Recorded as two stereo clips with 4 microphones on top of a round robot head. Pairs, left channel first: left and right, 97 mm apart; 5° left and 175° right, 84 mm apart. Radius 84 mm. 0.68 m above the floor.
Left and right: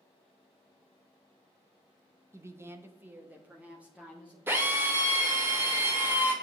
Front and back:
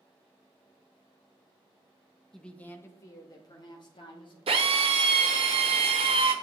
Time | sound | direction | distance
2.3 | a woman speaking | 75° right | 1.0 m
4.5 | a drill | 165° right | 1.2 m